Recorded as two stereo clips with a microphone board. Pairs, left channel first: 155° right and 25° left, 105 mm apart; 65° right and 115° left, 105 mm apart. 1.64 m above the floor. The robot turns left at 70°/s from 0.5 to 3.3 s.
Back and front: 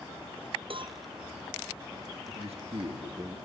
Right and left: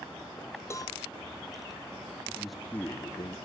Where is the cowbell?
5° right, 0.6 m; by 1.0 s 25° right, 0.6 m.